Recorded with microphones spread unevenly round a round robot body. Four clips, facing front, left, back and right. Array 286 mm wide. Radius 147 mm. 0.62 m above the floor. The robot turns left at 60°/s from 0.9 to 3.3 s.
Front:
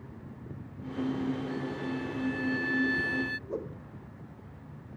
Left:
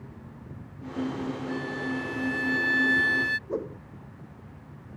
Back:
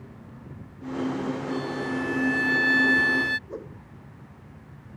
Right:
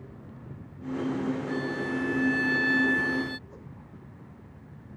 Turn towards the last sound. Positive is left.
turn(degrees=85)